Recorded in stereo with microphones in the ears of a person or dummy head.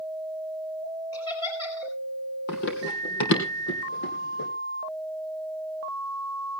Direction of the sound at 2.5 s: 60° left (ahead or behind).